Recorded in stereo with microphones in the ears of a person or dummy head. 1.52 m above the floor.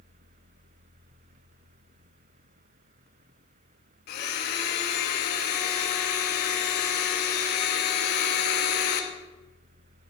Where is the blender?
50° left (ahead or behind), 1.3 m.